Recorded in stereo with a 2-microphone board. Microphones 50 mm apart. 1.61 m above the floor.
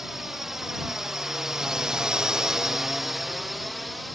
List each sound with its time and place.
0.0 s a drone: 5° right (ahead or behind); by 4.1 s centre (ahead or behind)